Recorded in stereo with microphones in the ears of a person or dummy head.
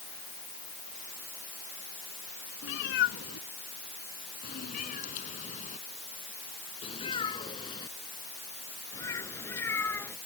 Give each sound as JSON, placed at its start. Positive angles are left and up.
{"t": 2.6, "sound": "a cat meowing", "side_deg": 65}